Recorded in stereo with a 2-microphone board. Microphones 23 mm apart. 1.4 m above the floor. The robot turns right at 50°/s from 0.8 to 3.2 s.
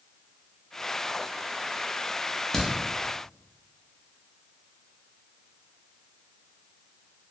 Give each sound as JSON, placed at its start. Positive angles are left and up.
{"t": 2.5, "sound": "a crack", "side_deg": 20, "distance_m": 0.6}